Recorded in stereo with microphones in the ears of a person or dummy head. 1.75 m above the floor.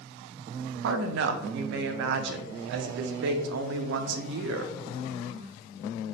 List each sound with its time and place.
0.8 s a woman speaking: 70° right (ahead or behind), 0.5 m